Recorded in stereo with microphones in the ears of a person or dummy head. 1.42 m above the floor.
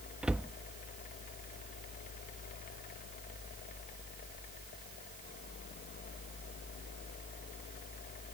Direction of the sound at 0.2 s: 5° right (ahead or behind).